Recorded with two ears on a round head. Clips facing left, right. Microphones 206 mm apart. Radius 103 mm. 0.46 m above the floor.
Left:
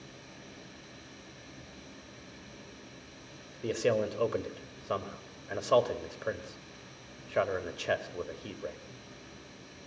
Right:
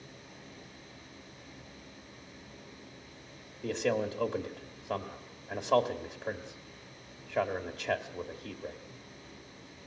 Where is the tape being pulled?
No tape being pulled in this recording.